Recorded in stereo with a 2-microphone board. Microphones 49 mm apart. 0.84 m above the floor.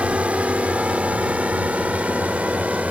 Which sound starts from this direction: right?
A drone, at 0.0 s.